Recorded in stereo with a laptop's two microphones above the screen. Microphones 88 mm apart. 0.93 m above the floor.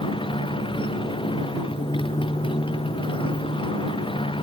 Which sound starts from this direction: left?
A motorcycle, at 0.0 s.